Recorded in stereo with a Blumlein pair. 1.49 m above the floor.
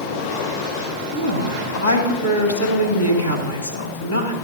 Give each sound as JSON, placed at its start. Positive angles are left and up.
{"t": 1.1, "sound": "a woman speaking", "azimuth_deg": 70, "distance_m": 3.0}